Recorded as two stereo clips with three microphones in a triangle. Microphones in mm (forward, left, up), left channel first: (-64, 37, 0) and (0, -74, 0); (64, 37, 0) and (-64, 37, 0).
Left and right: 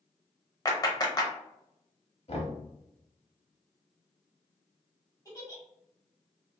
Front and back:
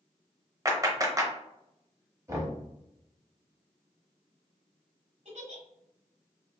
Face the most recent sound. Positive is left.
turn(degrees=-175)